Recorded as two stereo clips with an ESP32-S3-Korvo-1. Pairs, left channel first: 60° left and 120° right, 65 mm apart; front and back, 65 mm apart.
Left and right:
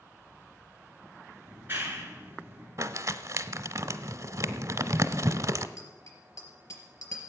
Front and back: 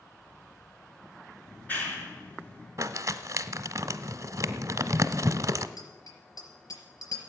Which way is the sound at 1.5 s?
65° right.